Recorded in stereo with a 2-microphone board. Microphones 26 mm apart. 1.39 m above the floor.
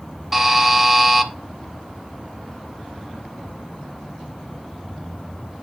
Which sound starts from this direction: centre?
A buzzer, at 0.3 s.